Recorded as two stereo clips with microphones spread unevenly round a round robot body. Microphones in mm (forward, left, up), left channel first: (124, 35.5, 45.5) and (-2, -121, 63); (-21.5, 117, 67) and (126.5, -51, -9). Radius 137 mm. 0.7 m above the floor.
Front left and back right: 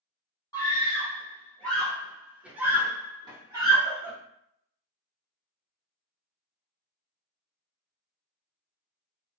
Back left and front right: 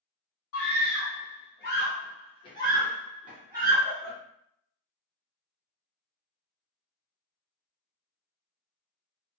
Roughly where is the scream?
Behind left.